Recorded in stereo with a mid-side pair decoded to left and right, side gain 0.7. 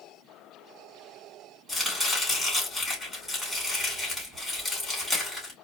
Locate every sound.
1.7 s chopping: straight ahead, 3.5 m